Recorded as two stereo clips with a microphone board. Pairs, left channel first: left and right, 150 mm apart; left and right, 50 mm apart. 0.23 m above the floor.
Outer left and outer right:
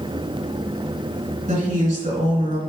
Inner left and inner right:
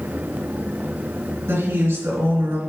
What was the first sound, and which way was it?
A woman speaking, 60° right (ahead or behind).